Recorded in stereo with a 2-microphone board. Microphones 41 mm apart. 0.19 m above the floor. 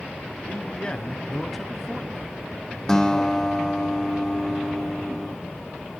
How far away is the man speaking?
About 1.3 m.